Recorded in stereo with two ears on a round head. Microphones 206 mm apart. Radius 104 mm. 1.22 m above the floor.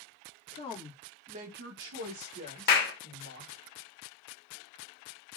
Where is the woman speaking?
30° left (ahead or behind), 0.8 m; by 3.6 s 70° right (ahead or behind), 2 m.